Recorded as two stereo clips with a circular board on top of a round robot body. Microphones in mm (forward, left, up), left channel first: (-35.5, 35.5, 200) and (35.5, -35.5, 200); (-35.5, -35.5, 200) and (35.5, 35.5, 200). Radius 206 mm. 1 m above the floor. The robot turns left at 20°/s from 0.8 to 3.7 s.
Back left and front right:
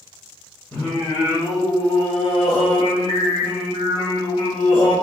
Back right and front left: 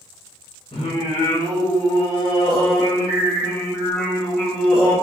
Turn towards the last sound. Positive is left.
turn(degrees=145)